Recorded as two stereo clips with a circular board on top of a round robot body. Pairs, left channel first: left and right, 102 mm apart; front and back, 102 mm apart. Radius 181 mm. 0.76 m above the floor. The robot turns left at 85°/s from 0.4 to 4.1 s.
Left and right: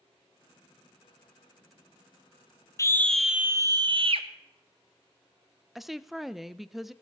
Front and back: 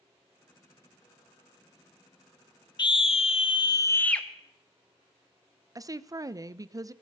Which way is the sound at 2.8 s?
35° left.